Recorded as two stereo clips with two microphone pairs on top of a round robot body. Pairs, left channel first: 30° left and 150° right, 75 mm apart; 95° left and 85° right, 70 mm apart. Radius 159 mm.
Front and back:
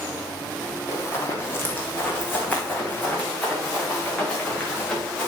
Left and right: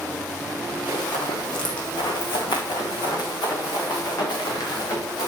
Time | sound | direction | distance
0.9 | running footsteps | 85° left | 1.4 m